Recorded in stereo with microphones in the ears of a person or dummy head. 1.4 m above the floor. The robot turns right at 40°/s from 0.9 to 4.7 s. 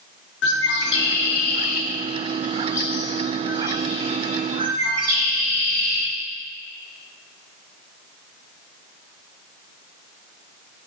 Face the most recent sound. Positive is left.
turn(degrees=-50)  # may be behind; listen again after turning